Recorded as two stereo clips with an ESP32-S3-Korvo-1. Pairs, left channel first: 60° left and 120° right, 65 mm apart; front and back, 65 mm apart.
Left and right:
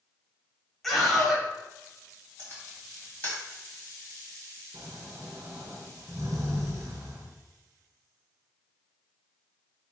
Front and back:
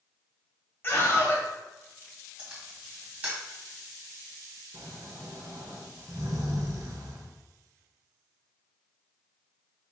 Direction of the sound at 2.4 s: 110° left.